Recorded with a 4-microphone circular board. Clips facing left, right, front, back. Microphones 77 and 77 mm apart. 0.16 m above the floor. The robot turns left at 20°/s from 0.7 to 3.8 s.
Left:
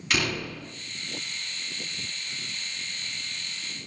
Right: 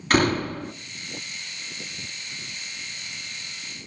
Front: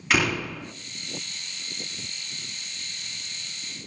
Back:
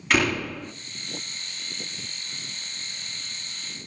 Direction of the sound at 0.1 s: 85° right.